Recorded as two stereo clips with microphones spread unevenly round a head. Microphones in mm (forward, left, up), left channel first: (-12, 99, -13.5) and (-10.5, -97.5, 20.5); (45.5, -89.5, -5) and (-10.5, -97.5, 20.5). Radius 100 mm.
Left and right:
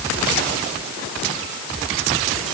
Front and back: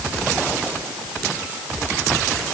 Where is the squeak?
No squeak in this recording.